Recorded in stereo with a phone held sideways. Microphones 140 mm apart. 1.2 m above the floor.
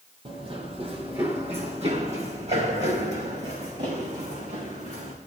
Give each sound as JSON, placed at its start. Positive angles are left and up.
{"t": 0.2, "sound": "running footsteps", "side_deg": -40, "distance_m": 2.5}